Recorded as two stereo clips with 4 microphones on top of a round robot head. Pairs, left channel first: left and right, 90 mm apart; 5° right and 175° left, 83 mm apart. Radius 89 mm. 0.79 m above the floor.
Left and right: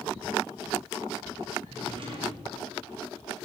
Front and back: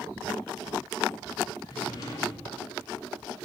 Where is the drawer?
55° right, 2.5 m.